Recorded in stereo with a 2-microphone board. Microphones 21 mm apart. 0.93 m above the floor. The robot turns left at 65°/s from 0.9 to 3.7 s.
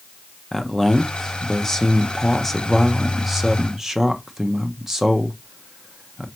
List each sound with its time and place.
0.5 s a man speaking: 20° left (ahead or behind), 0.7 m; by 6.2 s 20° right (ahead or behind), 0.7 m